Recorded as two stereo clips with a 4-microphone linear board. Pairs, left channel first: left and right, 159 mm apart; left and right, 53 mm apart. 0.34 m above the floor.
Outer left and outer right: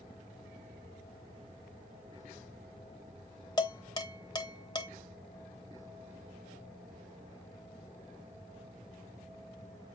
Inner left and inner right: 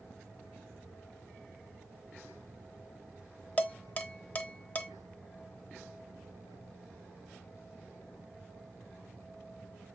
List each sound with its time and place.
3.6 s dishes clattering: 25° left (ahead or behind), 0.8 m